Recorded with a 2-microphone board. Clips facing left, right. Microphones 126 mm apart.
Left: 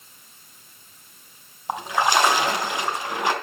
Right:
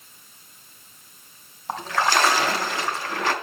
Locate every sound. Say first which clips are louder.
1.7 s a splash: left 1 dB; 15° left (ahead or behind), 3 m